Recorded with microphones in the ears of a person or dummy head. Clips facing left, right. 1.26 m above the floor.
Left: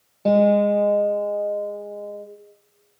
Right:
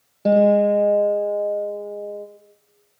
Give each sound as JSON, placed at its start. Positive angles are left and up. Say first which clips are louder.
{"t": 0.2, "sound": "a guitar", "louder": "right 1 dB", "side_deg": -15, "distance_m": 4.0}